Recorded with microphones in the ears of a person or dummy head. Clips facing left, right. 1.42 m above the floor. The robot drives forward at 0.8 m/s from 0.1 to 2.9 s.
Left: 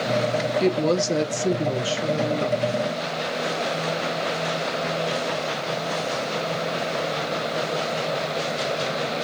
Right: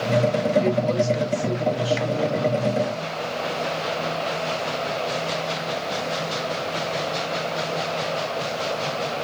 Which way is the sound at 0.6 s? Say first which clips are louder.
Even; 60° left (ahead or behind).